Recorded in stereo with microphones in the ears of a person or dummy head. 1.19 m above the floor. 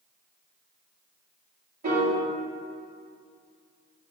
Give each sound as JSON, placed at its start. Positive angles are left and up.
{"t": 1.8, "sound": "a piano", "side_deg": -55, "distance_m": 3.0}